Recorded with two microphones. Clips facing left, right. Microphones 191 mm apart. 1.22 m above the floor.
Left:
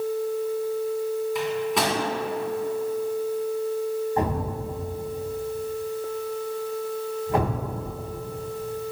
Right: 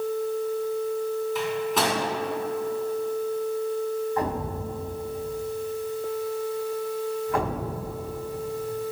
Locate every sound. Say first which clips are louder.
1.4 s a microwave: left 1 dB; centre (ahead or behind), 2.5 m
4.2 s a thud: left 2 dB; 25° left (ahead or behind), 2.5 m